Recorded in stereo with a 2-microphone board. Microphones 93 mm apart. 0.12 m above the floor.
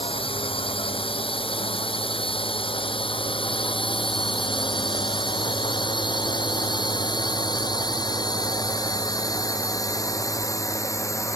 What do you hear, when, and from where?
0.0 s a drone: 75° left (ahead or behind); by 11.4 s 35° left (ahead or behind)